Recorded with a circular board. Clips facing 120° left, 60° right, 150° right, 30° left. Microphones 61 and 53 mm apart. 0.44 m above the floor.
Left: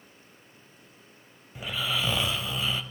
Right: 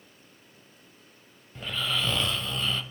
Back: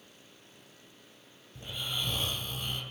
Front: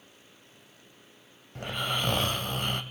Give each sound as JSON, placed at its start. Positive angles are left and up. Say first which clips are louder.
{"t": 1.6, "sound": "snoring", "louder": "even, front 6 dB", "azimuth_deg": 40, "distance_m": 1.8}